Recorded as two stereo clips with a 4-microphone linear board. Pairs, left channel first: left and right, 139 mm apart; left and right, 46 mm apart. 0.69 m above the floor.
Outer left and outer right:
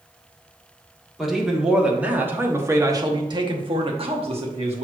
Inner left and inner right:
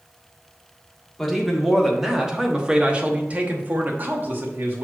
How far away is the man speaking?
About 1.5 m.